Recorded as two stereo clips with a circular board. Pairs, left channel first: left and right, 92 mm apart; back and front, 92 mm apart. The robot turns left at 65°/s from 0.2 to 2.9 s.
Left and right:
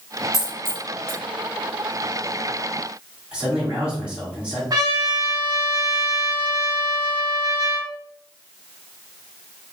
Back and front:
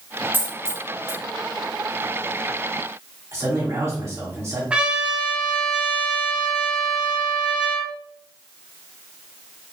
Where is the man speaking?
20° right, 1.9 m.